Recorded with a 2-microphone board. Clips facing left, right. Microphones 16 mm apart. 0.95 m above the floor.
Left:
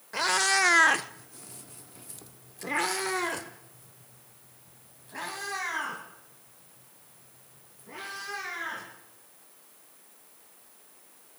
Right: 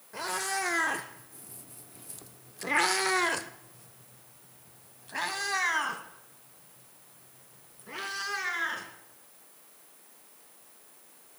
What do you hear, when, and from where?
0.1 s a cat meowing: 45° left (ahead or behind), 1.2 m; by 8.9 s 35° right (ahead or behind), 5 m